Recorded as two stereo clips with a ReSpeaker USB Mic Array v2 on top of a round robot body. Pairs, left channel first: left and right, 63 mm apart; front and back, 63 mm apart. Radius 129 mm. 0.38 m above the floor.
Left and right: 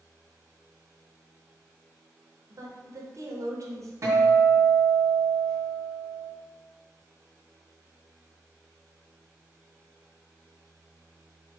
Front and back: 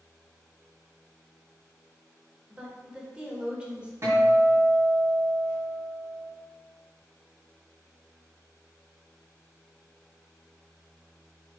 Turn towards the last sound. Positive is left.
turn(degrees=-135)